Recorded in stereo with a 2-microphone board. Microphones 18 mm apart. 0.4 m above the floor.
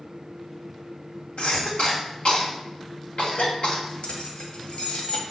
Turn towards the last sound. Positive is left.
turn(degrees=60)  # may be behind; listen again after turning